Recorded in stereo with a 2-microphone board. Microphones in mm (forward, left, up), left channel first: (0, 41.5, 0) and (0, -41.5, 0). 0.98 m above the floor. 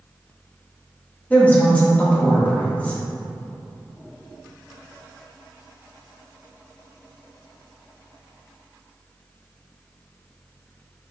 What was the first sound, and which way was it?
A woman speaking, 20° left (ahead or behind).